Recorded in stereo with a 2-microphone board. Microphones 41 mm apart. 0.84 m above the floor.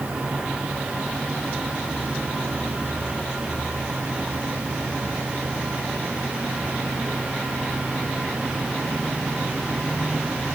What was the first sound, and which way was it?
Only background noise.